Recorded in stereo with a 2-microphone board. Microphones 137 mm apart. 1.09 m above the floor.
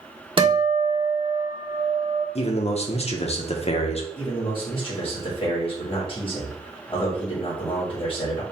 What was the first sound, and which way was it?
A guitar, 35° right (ahead or behind).